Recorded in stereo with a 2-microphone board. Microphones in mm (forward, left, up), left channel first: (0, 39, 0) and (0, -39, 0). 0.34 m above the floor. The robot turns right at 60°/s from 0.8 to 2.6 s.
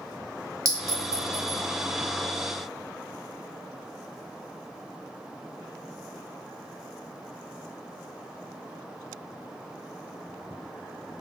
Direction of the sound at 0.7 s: 45° right (ahead or behind).